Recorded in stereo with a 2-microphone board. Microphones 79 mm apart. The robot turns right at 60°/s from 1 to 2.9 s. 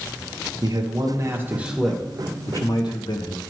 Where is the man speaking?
50° right, 1.2 m; by 3.4 s 60° left, 1.2 m.